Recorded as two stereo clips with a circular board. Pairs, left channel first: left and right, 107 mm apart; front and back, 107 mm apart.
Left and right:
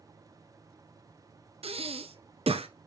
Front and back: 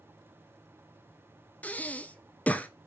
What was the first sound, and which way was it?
Breathing, 75° right.